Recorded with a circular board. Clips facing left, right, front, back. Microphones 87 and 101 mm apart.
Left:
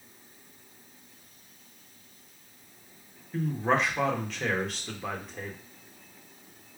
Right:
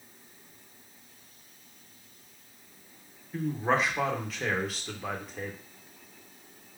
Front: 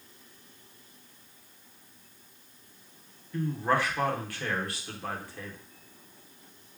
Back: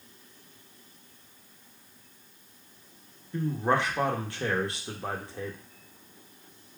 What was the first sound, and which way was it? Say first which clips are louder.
A man speaking: left 1 dB, back 1 dB; 175° right.